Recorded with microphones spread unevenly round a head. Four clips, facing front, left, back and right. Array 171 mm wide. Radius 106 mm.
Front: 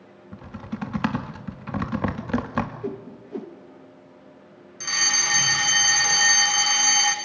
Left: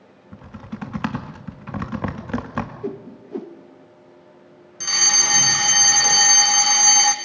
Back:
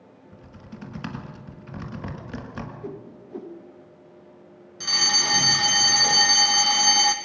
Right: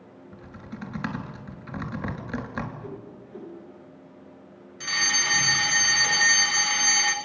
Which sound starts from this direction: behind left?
A fire alarm, at 4.8 s.